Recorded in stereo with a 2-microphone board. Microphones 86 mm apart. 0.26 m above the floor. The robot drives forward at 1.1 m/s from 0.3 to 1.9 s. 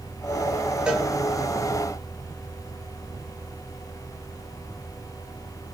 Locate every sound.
0.9 s a cowbell: 10° right (ahead or behind), 3 m